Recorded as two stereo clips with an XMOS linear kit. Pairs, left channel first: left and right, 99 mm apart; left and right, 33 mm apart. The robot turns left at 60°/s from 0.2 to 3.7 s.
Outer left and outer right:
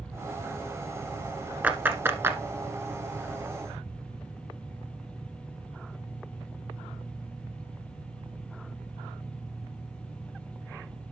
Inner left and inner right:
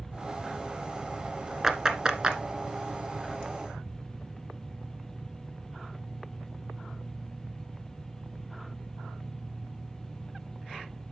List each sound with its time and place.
1.6 s a clap: 15° right (ahead or behind), 1.2 m; by 2.4 s 25° right (ahead or behind), 1.2 m